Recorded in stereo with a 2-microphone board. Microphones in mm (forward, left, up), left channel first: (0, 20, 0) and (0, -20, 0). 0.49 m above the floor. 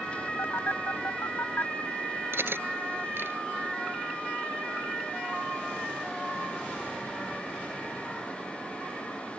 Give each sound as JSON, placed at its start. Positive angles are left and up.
{"t": 0.4, "sound": "a phone buzzing", "side_deg": 65}
{"t": 2.3, "sound": "cutlery clinking", "side_deg": -60}